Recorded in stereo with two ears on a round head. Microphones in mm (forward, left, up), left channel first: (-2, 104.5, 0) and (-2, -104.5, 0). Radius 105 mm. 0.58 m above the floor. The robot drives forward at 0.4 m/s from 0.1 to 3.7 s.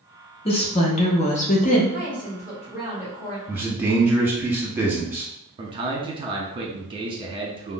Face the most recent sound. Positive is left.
turn(degrees=-20)  # may be behind; listen again after turning